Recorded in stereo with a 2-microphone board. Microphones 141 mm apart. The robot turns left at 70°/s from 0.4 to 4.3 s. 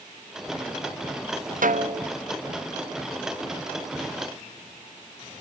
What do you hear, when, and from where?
1.6 s a snare drum: 105° right, 0.8 m; by 2.1 s 135° right, 0.8 m